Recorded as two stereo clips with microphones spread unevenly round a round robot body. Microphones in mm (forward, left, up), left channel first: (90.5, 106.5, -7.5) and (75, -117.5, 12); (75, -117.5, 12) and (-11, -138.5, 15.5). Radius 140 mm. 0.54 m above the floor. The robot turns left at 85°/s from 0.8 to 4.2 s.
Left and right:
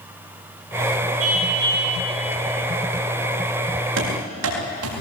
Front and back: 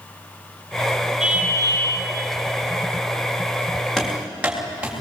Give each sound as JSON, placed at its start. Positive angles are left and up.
{"t": 1.2, "sound": "a car horn", "azimuth_deg": -85, "distance_m": 8.0}
{"t": 4.0, "sound": "running footsteps", "azimuth_deg": -70, "distance_m": 8.5}